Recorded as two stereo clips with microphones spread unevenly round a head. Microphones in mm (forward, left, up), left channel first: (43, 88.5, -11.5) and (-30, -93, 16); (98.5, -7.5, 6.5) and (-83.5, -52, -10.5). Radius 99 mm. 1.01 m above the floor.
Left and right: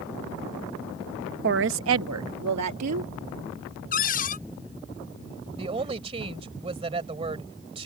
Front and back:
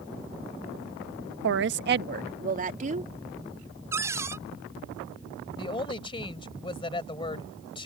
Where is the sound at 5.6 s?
50° right.